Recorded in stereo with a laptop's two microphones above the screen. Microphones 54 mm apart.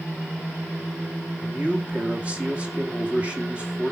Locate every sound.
1.4 s a man speaking: 25° right (ahead or behind), 1.8 m